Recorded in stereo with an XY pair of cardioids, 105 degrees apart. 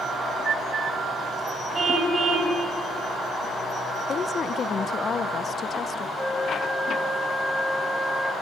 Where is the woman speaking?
40° left, 1.2 m.